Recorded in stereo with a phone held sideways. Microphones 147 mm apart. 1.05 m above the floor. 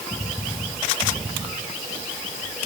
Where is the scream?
I don't hear a scream.